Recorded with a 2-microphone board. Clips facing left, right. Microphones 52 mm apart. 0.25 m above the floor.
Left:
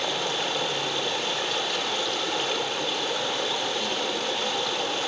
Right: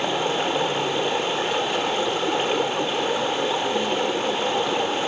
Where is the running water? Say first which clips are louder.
Right 5 dB; 30° right (ahead or behind), 1.7 m.